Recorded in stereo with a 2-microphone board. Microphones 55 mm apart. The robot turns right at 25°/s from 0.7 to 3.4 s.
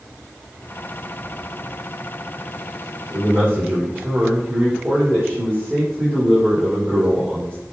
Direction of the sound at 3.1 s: 50° right (ahead or behind).